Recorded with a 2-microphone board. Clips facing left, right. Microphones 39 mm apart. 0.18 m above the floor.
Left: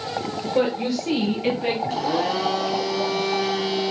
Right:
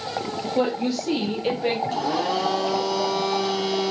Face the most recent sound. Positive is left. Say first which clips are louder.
# left 1 dB
turn(degrees=70)  # may be behind; listen again after turning